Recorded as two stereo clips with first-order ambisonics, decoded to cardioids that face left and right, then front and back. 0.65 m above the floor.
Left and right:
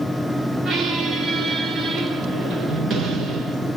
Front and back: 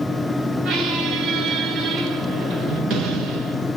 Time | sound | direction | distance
0.7 | a squeak | 145° right | 1.0 m